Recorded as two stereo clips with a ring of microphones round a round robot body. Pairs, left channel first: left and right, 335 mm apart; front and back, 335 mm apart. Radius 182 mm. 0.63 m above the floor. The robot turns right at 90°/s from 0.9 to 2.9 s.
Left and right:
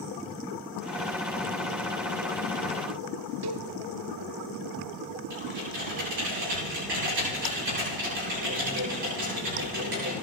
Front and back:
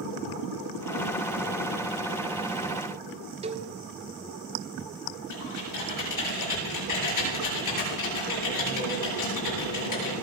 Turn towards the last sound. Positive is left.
turn(degrees=-30)